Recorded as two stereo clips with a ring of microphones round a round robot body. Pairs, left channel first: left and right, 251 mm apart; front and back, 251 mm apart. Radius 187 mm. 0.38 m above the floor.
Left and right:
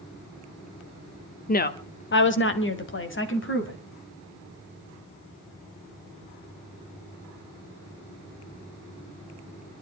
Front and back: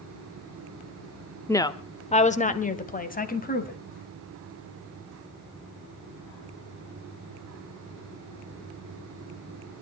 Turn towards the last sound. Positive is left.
turn(degrees=55)